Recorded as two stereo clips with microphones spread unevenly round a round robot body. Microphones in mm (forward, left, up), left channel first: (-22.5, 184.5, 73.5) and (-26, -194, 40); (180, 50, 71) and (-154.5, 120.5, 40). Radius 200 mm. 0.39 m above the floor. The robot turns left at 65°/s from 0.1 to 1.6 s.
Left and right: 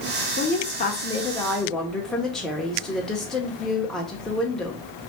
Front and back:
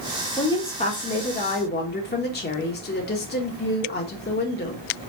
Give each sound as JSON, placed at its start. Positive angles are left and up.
{"t": 0.4, "sound": "a woman speaking", "azimuth_deg": 70, "distance_m": 0.9}